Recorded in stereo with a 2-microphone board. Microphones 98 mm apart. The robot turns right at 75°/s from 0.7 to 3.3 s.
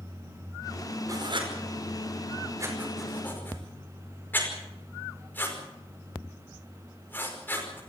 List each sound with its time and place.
1.1 s writing: 30° right (ahead or behind), 5 m; by 7.8 s 20° left (ahead or behind), 5 m